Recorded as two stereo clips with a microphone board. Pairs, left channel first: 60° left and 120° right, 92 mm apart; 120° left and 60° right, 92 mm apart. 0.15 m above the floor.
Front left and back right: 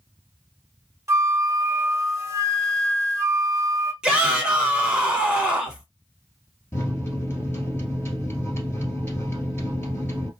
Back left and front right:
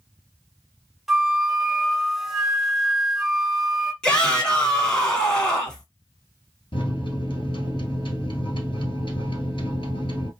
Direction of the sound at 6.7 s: 120° left.